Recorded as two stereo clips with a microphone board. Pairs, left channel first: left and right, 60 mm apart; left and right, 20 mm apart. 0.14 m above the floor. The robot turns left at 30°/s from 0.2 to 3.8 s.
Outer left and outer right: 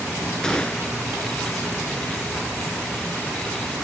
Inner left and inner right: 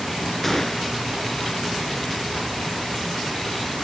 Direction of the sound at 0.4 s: 10° left (ahead or behind).